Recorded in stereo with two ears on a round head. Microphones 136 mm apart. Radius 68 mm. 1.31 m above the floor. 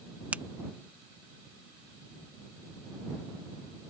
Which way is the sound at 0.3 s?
10° right (ahead or behind).